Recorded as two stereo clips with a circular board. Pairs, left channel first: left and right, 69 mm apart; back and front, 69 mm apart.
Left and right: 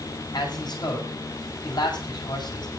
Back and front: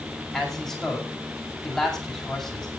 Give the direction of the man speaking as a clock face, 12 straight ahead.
9 o'clock.